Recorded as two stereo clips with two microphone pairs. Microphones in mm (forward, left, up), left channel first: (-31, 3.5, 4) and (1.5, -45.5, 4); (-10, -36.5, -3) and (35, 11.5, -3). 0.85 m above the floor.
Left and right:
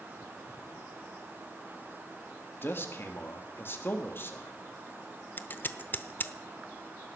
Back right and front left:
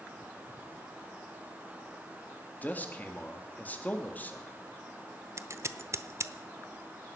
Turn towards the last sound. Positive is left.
turn(degrees=75)